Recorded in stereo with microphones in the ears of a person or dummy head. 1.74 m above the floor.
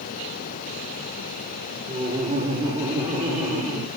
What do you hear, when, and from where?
1.9 s laughter: 30° right (ahead or behind), 4 m; by 3.9 s 15° right (ahead or behind), 3.5 m